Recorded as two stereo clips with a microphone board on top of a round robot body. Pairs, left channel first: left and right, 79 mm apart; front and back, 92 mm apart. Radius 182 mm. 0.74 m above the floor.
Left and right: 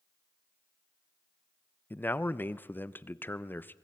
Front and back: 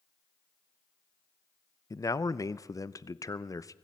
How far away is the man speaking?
About 0.9 m.